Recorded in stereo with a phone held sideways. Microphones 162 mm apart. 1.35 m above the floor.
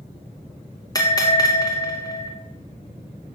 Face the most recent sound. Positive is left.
turn(degrees=25)  # may be behind; listen again after turning